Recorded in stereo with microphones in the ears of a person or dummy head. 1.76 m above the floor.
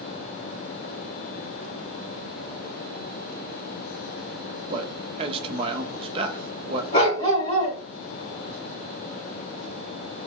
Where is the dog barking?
35° left (ahead or behind), 2.5 m.